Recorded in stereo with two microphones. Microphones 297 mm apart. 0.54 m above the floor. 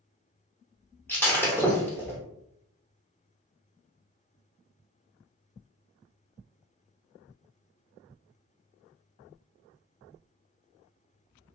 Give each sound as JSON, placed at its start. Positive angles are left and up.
{"t": 1.1, "sound": "breaking glass", "side_deg": 5, "distance_m": 0.9}